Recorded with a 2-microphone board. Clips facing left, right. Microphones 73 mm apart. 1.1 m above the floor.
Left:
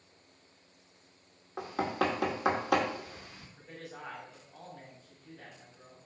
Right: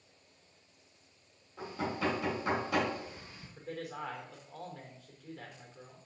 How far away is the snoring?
I don't hear snoring.